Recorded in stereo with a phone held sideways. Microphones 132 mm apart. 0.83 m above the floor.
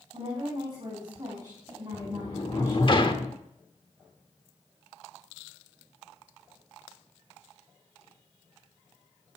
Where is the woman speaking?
45° right (ahead or behind), 5 m; by 2.9 s 20° right (ahead or behind), 5 m.